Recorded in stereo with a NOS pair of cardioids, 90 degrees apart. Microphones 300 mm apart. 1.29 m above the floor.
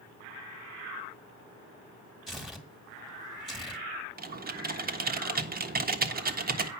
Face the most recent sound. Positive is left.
turn(degrees=-30)